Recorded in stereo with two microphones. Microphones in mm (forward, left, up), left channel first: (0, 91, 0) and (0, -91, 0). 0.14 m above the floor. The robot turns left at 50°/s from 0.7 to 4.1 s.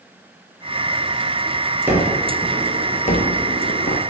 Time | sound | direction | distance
1.9 | a gunshot | 170° right | 0.7 m